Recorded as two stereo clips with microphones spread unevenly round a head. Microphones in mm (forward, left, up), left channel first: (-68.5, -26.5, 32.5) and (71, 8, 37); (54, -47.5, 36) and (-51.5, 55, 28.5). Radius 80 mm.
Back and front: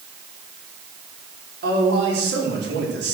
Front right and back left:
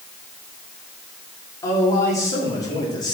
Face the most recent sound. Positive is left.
turn(degrees=20)